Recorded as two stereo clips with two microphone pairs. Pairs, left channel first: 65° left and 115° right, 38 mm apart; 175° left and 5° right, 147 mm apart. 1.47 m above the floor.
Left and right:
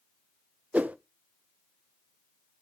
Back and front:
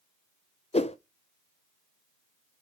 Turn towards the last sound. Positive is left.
turn(degrees=-150)